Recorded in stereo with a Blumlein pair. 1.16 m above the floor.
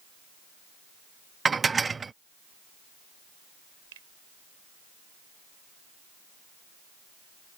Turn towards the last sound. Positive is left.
turn(degrees=-55)